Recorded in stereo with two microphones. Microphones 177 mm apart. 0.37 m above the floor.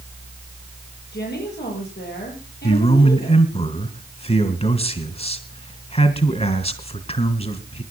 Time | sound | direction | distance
1.1 | a woman speaking | 80° left | 10 m
2.6 | a man speaking | 35° left (ahead or behind) | 2.5 m